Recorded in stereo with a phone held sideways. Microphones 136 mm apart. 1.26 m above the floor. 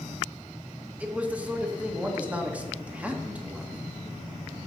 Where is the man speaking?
10° right (ahead or behind), 1.9 m.